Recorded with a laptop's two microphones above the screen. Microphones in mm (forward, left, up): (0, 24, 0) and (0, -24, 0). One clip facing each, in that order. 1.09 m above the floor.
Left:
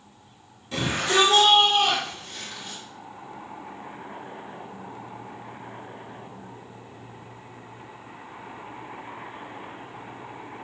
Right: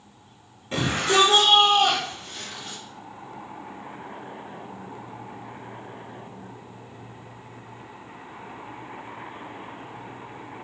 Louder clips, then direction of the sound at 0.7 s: Right 1 dB; 30° right (ahead or behind).